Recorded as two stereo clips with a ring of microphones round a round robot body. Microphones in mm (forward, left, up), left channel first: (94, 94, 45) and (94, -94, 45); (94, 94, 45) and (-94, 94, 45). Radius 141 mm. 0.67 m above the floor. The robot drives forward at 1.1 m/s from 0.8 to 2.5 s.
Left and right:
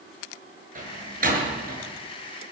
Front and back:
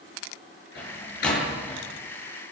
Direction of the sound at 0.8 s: 50° right.